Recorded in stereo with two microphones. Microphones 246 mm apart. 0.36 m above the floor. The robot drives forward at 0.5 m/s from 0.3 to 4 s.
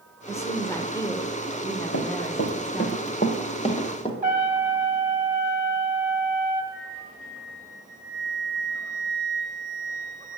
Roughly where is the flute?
Left.